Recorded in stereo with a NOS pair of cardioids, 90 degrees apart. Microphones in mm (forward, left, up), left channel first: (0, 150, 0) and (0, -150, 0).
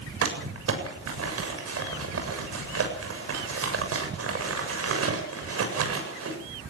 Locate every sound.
0.2 s crumpling: 50° right, 7.5 m